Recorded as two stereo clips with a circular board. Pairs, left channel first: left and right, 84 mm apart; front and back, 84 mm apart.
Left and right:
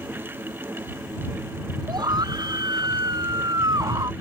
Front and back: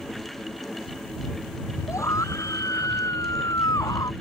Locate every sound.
1.9 s a scream: 50° right; by 4.1 s 45° right